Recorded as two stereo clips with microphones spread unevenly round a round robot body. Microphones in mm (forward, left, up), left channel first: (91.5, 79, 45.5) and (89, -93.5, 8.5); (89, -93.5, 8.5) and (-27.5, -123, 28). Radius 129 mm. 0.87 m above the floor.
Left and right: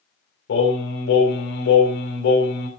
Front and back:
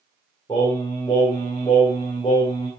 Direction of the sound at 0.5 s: 85° left.